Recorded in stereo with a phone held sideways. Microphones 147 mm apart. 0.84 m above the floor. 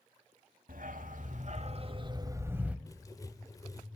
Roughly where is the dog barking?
Right.